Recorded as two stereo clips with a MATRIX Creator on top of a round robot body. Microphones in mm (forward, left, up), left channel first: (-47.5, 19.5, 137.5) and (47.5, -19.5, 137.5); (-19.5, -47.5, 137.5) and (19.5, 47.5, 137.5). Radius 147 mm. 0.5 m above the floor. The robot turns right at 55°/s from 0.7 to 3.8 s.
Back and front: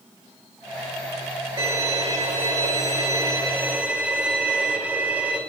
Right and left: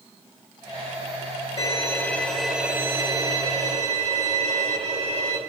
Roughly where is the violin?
Right.